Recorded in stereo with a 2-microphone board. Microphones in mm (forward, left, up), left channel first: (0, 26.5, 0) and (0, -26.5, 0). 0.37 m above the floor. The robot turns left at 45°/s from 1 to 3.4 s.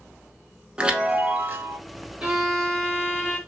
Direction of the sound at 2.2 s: 155° right.